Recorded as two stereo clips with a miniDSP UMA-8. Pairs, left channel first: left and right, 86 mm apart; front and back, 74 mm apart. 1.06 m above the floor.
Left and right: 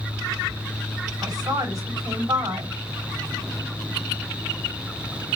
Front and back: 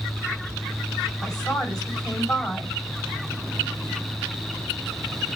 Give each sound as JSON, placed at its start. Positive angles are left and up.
{"t": 1.2, "sound": "a woman speaking", "azimuth_deg": -40, "distance_m": 4.0}